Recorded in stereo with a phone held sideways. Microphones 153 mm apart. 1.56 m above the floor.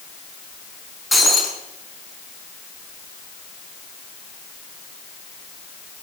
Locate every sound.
1.1 s breaking glass: centre (ahead or behind), 5 m